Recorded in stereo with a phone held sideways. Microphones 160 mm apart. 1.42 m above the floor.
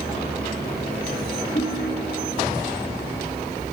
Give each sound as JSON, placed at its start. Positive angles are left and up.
{"t": 1.6, "sound": "a ringtone", "side_deg": 40, "distance_m": 9.0}